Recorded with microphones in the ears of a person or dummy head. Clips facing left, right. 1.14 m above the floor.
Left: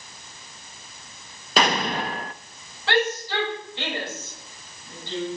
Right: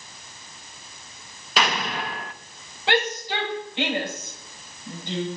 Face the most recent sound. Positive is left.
turn(degrees=-20)  # may be behind; listen again after turning